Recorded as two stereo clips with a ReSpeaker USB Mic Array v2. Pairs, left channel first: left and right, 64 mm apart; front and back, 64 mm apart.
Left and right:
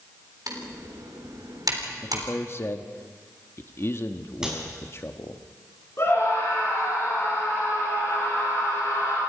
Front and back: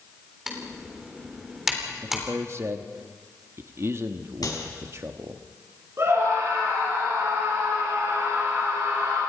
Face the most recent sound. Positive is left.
turn(degrees=135)